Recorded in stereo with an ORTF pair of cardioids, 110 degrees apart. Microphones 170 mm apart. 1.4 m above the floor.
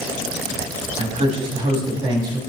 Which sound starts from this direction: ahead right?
A man speaking, at 1.0 s.